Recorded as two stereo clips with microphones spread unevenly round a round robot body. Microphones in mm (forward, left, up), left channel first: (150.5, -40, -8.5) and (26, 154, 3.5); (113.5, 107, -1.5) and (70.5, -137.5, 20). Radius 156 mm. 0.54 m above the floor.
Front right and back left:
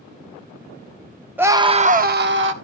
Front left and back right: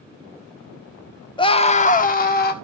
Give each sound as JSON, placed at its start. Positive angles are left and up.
{"t": 1.4, "sound": "a scream", "azimuth_deg": 40, "distance_m": 0.9}